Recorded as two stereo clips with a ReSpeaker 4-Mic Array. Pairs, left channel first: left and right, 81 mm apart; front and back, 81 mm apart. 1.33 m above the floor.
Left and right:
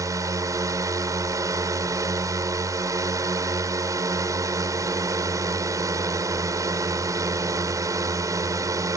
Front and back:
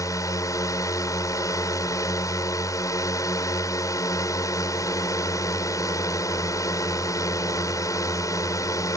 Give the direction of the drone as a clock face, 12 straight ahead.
1 o'clock.